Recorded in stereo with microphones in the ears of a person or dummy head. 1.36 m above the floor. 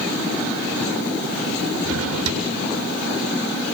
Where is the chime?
I don't hear a chime.